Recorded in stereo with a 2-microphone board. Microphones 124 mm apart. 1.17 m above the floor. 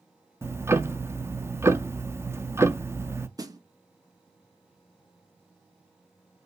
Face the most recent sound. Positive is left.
turn(degrees=-30)  # may be behind; listen again after turning